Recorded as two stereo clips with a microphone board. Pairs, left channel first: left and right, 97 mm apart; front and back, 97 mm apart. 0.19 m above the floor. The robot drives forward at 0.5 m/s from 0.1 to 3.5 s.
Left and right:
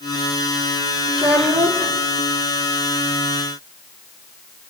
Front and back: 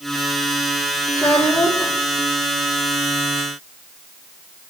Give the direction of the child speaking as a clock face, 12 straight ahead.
2 o'clock.